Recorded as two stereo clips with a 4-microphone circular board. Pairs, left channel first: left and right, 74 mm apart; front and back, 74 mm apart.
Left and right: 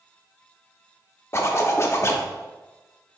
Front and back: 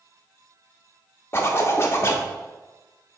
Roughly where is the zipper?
Ahead left.